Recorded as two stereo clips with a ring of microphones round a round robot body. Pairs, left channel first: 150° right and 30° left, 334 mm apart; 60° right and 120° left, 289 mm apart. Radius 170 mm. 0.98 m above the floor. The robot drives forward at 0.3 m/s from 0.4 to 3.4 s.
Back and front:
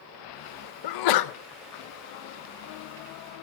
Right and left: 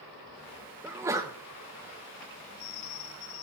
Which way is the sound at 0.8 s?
155° right.